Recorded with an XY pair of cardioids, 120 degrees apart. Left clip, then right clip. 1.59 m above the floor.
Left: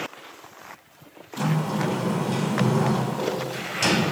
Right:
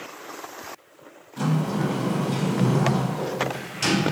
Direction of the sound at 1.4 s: 15° left.